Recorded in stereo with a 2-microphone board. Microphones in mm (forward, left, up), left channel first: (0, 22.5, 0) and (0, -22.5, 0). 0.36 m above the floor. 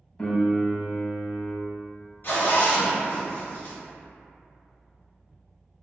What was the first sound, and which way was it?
A piano, 15° left (ahead or behind).